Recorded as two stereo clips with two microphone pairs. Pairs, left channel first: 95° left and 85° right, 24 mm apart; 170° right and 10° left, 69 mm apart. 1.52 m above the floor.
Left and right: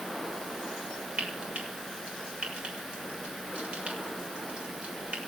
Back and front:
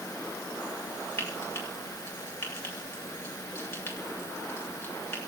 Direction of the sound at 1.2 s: 115° right.